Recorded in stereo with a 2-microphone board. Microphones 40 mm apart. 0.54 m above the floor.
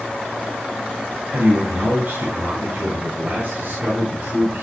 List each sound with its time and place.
1.3 s a man speaking: 45° right (ahead or behind), 4 m